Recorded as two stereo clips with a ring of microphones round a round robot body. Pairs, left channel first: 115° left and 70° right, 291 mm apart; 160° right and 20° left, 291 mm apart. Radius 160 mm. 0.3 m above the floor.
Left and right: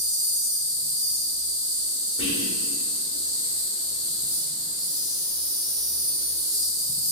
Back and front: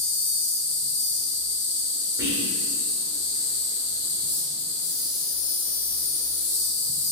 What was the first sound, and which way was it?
An insect, 140° right.